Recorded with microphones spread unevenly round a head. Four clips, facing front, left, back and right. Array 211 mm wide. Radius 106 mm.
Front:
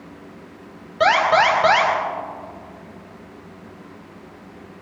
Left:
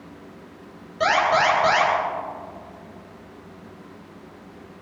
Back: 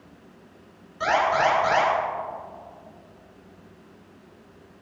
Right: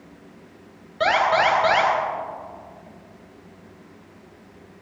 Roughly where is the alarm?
Ahead.